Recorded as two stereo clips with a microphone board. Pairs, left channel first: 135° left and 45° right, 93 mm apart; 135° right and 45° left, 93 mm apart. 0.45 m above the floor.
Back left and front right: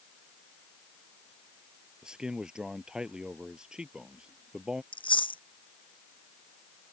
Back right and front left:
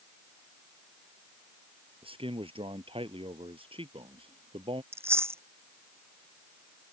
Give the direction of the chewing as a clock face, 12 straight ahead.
8 o'clock.